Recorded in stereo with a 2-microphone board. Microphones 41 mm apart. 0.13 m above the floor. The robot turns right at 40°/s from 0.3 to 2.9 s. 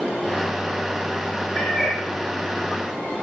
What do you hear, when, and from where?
1.6 s a cat meowing: 30° left (ahead or behind), 2.5 m; by 2.0 s 10° left (ahead or behind), 2.5 m